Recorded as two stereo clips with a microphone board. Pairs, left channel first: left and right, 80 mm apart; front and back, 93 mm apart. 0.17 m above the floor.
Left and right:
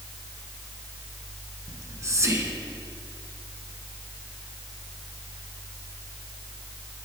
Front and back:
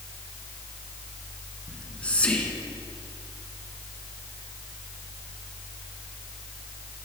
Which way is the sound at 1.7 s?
70° right.